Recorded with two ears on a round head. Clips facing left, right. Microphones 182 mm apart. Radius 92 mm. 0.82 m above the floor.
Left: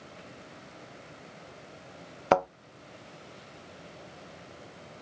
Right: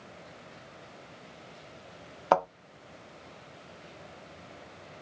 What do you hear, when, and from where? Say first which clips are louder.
2.3 s a thud: left 1 dB; 25° left (ahead or behind), 0.8 m